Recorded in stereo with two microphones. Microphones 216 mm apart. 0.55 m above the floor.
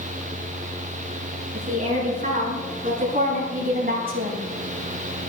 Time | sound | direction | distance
1.5 | a woman speaking | 40° right (ahead or behind) | 6.5 m